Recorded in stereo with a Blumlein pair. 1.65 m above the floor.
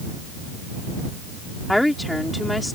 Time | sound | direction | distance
1.7 | a woman speaking | 5° left | ?